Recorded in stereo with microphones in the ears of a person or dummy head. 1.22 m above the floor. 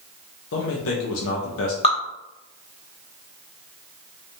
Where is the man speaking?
80° left, 0.9 m.